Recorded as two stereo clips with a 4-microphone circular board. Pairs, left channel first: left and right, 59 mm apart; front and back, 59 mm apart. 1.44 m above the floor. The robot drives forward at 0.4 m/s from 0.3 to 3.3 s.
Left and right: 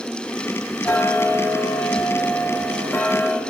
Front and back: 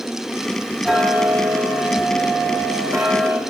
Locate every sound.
0.8 s ticking: 100° left, 1.2 m; by 3.4 s 150° left, 1.6 m